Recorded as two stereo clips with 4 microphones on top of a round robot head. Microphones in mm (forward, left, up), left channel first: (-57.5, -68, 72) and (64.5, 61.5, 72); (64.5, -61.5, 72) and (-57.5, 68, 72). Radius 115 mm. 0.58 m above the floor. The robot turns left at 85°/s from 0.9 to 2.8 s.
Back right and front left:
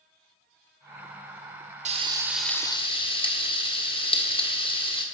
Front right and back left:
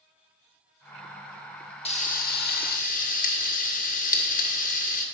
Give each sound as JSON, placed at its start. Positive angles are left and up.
{"t": 1.9, "sound": "frying", "azimuth_deg": 5, "distance_m": 1.5}